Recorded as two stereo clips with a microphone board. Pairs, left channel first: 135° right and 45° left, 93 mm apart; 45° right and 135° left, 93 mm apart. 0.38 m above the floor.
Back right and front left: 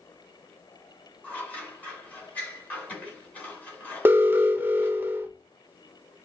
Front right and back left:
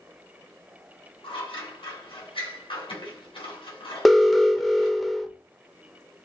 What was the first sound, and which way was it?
Scissors, 60° right.